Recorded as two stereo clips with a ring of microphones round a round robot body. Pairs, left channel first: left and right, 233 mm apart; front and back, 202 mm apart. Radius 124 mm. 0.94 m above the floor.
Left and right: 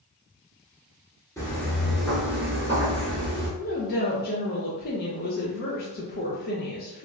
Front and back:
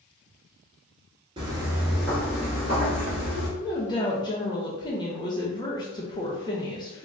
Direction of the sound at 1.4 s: 155° left.